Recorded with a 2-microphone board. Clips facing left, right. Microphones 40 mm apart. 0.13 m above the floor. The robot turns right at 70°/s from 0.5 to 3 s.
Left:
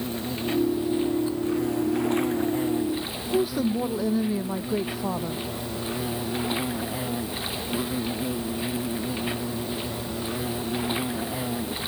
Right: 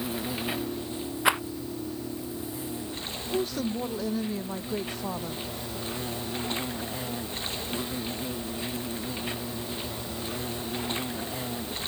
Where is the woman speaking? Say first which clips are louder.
Left 5 dB; 10° left (ahead or behind).